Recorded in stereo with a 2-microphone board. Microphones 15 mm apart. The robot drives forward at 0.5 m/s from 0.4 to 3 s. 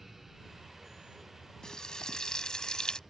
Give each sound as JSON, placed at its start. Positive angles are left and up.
{"t": 1.6, "sound": "frying", "side_deg": 60}